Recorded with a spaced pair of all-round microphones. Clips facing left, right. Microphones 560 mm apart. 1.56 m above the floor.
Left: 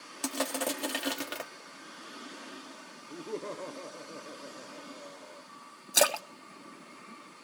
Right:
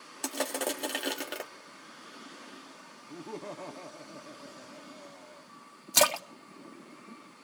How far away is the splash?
About 0.6 m.